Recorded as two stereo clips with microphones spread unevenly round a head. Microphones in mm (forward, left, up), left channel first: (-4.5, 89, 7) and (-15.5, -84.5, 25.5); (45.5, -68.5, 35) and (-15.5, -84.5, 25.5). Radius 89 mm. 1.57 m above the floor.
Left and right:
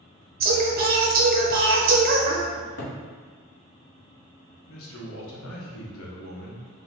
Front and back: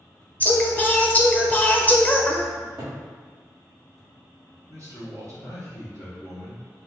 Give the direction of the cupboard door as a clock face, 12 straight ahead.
8 o'clock.